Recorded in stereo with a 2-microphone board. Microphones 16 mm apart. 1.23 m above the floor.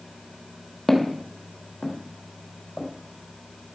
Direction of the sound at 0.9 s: 15° left (ahead or behind).